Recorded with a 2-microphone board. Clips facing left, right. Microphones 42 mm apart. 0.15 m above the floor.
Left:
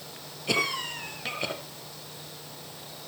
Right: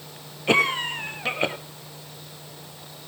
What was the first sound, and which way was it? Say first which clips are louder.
A cough: right 7 dB; 35° right (ahead or behind).